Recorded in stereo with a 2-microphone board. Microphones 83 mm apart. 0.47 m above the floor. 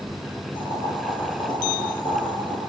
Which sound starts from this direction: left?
Boiling, at 0.6 s.